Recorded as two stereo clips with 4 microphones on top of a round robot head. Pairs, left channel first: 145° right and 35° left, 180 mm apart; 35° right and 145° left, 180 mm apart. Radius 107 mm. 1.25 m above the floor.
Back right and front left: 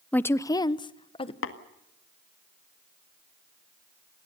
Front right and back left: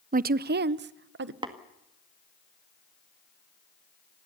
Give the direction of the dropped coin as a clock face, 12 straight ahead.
No dropped coin in this recording.